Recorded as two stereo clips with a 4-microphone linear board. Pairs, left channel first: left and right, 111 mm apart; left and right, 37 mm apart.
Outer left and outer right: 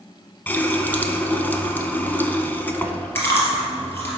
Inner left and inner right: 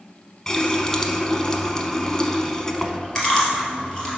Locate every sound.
0.5 s a running tap: 15° left (ahead or behind), 0.8 m
3.1 s chewing: 20° left (ahead or behind), 2 m